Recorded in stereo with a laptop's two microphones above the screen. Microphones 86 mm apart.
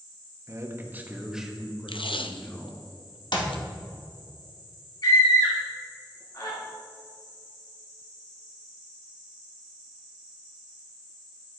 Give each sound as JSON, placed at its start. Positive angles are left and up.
{"t": 0.5, "sound": "a man speaking", "side_deg": -40, "distance_m": 1.0}
{"t": 1.9, "sound": "tape being pulled", "side_deg": 80, "distance_m": 0.6}
{"t": 3.3, "sound": "a clap", "side_deg": 60, "distance_m": 1.4}
{"t": 5.0, "sound": "a scream", "side_deg": 45, "distance_m": 1.7}